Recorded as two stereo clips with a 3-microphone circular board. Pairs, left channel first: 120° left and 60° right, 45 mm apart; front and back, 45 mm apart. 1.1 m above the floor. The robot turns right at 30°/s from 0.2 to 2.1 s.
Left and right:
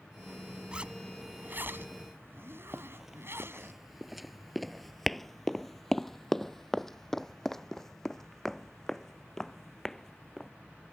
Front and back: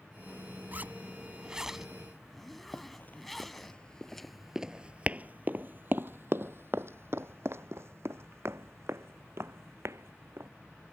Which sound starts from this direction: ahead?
Running footsteps, at 2.7 s.